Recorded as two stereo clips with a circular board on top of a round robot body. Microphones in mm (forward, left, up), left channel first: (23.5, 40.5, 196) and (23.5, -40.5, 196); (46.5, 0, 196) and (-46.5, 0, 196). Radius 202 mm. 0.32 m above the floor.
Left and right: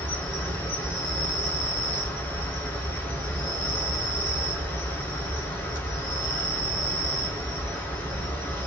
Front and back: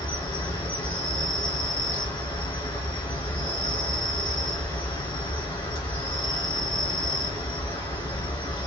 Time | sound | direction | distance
0.0 | an insect | 25° left | 2 m